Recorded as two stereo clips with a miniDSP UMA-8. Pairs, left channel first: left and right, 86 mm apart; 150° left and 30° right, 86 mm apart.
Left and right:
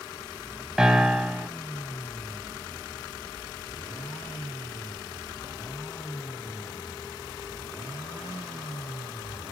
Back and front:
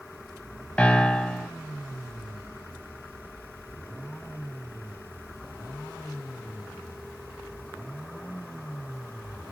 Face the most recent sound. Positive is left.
turn(degrees=-160)